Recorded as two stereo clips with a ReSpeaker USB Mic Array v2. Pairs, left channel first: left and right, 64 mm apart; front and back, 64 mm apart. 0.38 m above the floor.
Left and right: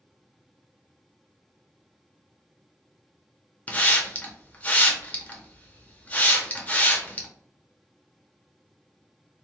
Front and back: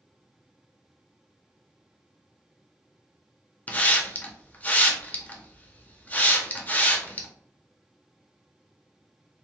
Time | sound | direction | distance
3.7 | a hiss | 45° left | 0.5 m